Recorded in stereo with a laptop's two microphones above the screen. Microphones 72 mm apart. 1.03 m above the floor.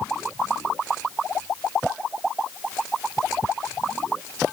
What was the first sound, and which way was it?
Only background noise.